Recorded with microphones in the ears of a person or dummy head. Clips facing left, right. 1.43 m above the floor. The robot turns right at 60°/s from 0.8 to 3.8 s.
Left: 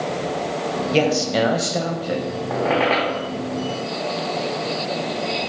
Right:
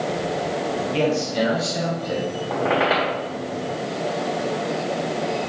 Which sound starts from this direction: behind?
A squeak, at 2.5 s.